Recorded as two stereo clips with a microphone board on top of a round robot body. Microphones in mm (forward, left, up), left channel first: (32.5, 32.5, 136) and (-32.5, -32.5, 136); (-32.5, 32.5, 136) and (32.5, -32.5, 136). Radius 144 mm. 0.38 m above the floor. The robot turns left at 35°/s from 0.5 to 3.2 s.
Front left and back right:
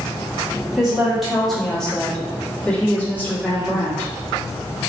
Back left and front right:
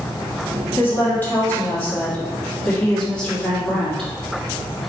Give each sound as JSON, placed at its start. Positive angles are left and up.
{"t": 0.8, "sound": "a woman speaking", "azimuth_deg": 155, "distance_m": 1.4}